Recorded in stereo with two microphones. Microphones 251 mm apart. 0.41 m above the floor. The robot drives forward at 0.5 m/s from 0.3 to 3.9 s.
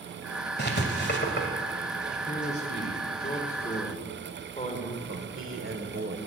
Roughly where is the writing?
Left.